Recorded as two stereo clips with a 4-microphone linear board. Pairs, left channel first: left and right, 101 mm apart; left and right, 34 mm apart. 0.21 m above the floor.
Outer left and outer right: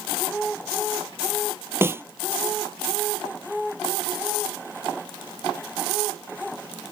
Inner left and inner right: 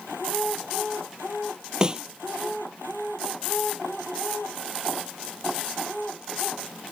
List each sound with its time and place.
1.8 s a snare drum: 25° right (ahead or behind)